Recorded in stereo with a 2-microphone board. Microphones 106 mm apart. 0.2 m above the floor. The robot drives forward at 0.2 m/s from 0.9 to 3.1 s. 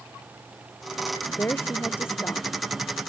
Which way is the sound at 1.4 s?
20° left (ahead or behind).